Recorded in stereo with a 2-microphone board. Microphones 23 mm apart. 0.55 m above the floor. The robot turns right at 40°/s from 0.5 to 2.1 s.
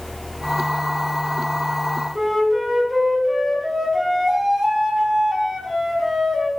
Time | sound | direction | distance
2.1 | a flute | 20° right (ahead or behind) | 4 m